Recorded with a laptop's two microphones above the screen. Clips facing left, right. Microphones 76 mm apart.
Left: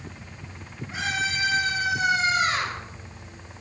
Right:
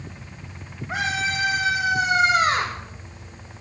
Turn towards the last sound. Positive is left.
turn(degrees=-65)  # may be behind; listen again after turning